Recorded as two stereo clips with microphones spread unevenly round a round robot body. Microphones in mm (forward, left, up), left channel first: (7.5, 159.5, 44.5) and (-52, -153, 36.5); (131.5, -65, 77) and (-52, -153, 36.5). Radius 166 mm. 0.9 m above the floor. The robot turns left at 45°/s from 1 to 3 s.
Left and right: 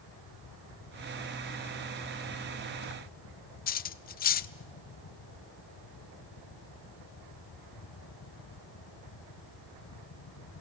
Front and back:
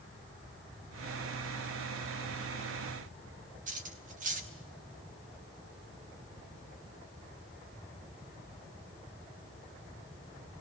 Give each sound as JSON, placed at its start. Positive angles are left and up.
{"t": 3.7, "sound": "cutlery clinking", "azimuth_deg": 145, "distance_m": 0.6}